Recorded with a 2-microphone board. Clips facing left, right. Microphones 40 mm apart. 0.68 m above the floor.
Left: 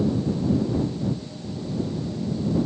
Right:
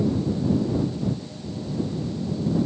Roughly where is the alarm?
I don't hear an alarm.